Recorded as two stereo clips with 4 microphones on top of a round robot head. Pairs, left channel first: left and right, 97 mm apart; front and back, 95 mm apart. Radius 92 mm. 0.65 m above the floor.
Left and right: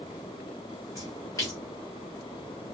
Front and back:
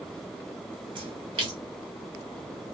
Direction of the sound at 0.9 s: 155° left.